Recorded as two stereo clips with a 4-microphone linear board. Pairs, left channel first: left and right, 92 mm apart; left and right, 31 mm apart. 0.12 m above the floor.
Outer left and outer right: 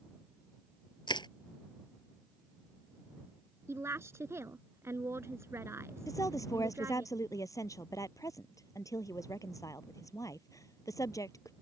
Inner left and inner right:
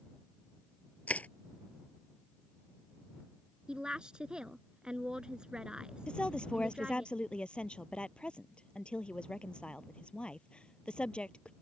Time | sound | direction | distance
1.1 | crushing | 60° left (ahead or behind) | ?
3.7 | a woman speaking | 30° right (ahead or behind) | ?
6.1 | a woman speaking | 40° left (ahead or behind) | ?